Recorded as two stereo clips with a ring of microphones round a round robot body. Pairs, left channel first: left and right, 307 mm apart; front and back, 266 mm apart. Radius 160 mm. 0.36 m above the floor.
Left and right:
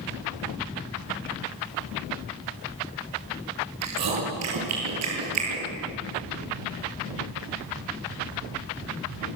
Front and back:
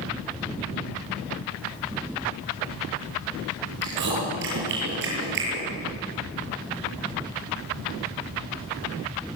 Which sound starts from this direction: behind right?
Chewing, at 3.8 s.